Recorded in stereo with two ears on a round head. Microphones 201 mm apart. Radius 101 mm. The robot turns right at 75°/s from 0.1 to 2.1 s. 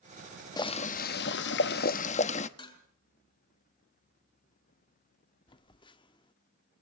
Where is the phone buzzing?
20° left (ahead or behind), 0.7 m.